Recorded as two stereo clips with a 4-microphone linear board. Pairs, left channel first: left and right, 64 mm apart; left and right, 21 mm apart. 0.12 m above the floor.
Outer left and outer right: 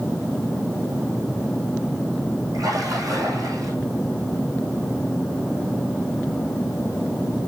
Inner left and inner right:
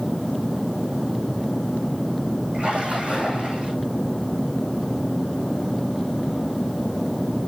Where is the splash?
75° right (ahead or behind), 5.5 m.